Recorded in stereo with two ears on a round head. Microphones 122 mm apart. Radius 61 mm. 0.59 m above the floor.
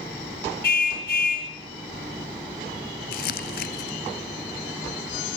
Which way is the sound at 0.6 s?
80° left.